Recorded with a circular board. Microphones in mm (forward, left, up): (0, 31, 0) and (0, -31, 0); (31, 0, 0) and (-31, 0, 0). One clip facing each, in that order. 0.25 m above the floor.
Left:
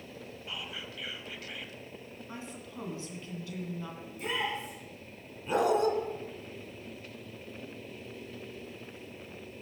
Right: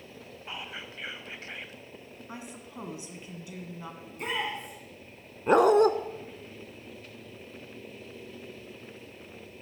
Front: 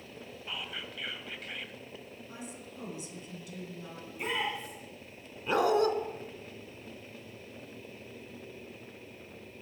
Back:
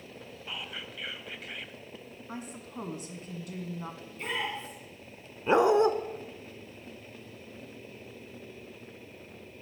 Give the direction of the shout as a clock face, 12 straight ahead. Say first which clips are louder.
Right 2 dB, front 2 dB; 2 o'clock.